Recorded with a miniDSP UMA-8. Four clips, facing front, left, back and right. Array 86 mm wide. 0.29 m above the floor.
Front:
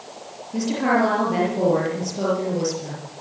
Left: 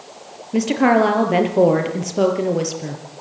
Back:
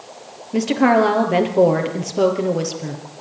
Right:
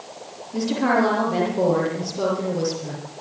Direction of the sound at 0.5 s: 130° left.